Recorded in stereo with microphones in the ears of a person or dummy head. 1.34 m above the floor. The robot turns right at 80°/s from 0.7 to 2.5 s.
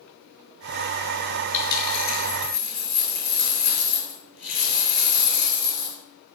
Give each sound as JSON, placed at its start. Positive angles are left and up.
{"t": 1.5, "sound": "a dropped coin", "azimuth_deg": 40, "distance_m": 4.5}